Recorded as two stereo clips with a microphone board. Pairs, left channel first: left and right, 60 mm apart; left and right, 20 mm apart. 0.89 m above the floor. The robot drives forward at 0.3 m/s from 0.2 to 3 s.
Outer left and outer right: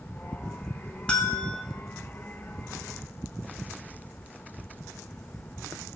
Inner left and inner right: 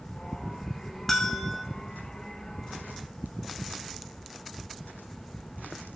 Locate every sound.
1.1 s a bell: 15° left (ahead or behind), 3 m